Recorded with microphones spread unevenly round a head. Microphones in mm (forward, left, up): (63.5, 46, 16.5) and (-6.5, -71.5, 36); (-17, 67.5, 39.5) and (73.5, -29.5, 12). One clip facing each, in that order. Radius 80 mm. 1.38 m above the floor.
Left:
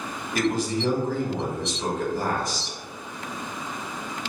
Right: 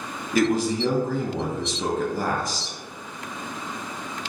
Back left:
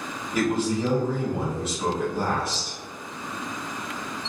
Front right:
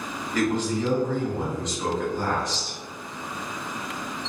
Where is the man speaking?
140° right, 0.7 m.